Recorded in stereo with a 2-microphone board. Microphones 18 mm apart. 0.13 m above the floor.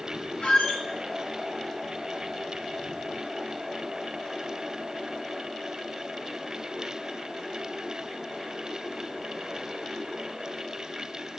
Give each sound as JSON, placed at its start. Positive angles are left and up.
{"t": 0.4, "sound": "a squeak", "side_deg": 75, "distance_m": 2.5}